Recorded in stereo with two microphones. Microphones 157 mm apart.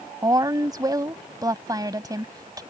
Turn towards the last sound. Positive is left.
turn(degrees=-25)  # may be behind; listen again after turning